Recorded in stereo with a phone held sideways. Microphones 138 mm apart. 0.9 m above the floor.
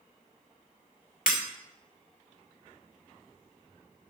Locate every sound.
1.3 s breaking glass: 75° left (ahead or behind), 1.7 m